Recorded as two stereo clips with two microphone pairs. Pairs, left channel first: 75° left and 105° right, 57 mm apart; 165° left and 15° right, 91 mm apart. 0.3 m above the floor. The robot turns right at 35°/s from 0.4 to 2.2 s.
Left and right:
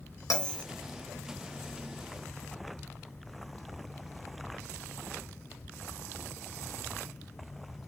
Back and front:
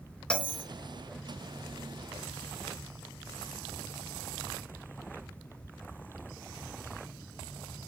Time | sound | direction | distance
0.3 | a bell | 90° left | 1.9 m